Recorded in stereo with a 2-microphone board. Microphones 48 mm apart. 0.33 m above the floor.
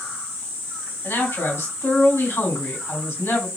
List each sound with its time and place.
1.0 s a man speaking: 65° left (ahead or behind), 3 m